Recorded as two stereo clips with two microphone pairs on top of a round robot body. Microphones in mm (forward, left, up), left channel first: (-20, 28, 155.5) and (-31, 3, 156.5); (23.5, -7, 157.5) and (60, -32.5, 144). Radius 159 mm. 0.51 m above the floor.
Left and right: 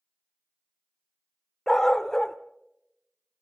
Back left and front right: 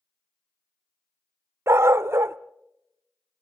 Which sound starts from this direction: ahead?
A dog barking, at 1.7 s.